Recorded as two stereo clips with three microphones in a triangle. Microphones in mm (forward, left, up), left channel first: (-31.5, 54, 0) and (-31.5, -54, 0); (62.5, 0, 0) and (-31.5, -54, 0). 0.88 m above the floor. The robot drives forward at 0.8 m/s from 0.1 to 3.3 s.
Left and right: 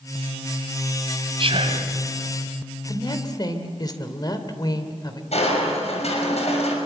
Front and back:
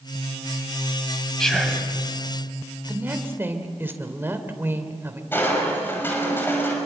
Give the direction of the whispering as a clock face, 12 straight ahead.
2 o'clock.